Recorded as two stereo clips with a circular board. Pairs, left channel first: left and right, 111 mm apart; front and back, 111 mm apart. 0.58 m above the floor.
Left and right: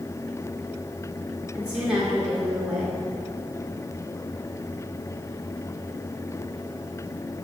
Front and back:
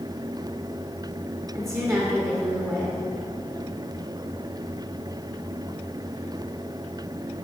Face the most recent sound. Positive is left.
turn(degrees=-165)